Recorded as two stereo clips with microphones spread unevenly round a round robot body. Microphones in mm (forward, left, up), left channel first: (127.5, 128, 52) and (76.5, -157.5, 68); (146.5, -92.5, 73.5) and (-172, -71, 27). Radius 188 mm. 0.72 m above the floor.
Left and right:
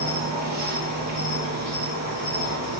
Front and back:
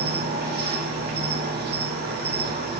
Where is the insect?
135° right, 2.5 m.